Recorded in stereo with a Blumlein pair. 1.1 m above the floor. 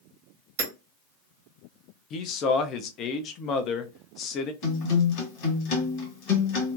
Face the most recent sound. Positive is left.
turn(degrees=40)